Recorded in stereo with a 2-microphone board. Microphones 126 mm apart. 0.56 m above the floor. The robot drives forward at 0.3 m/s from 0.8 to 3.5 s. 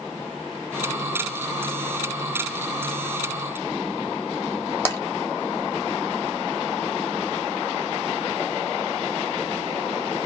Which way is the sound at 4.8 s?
15° left (ahead or behind).